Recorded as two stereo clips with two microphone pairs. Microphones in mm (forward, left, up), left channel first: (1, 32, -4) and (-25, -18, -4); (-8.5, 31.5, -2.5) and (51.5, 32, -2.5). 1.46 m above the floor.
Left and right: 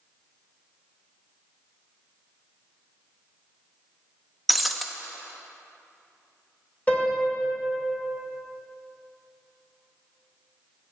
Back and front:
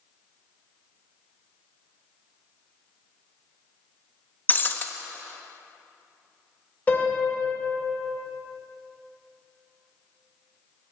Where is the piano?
120° left, 1.8 m.